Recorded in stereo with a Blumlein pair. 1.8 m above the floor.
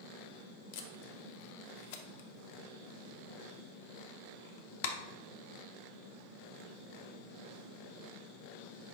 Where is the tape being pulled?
50° left, 0.5 m.